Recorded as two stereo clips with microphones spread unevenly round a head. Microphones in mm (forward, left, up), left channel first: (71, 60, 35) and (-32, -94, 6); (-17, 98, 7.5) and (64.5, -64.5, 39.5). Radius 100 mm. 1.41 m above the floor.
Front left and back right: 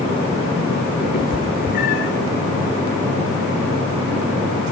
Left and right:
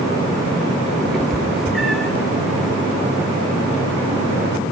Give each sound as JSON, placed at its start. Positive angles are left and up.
{"t": 1.1, "sound": "a cat meowing", "azimuth_deg": 25, "distance_m": 1.9}